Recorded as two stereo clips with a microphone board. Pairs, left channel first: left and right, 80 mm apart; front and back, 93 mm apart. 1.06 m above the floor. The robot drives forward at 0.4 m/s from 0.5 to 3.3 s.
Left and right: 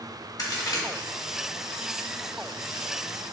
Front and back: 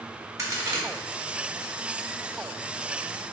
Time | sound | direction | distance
0.4 | a crack | 125° left | 0.7 m